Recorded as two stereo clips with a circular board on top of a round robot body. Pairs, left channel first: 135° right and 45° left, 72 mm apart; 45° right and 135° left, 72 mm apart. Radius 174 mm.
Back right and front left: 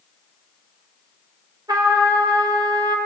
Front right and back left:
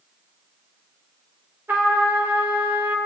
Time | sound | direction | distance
1.7 | a trumpet | 70° left | 4.5 m